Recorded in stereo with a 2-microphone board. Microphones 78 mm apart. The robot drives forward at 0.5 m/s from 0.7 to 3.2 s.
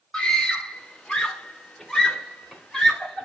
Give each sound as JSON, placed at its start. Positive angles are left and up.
{"t": 0.1, "sound": "a scream", "side_deg": 10, "distance_m": 1.2}